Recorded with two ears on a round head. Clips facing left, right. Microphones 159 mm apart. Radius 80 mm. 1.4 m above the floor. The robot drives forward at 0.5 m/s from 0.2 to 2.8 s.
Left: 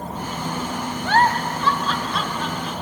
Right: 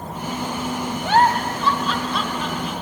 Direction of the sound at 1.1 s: 15° right (ahead or behind).